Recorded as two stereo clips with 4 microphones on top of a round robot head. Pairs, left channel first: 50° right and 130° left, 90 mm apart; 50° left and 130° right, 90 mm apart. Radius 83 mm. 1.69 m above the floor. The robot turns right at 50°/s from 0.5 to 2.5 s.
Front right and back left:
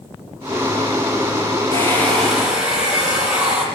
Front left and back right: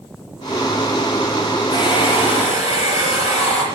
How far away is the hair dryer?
About 8 m.